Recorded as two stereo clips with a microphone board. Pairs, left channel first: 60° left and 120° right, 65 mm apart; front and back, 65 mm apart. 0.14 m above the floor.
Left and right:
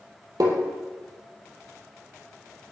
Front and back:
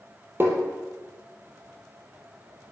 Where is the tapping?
130° right, 4 m.